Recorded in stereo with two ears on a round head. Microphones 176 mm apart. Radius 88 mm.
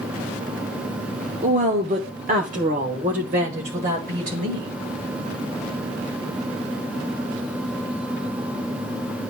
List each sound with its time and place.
1.4 s a woman speaking: 35° right (ahead or behind), 0.9 m; by 4.7 s 40° right (ahead or behind), 2.5 m